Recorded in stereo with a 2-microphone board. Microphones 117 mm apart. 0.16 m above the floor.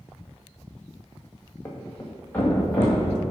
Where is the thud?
20° left (ahead or behind), 1.7 m.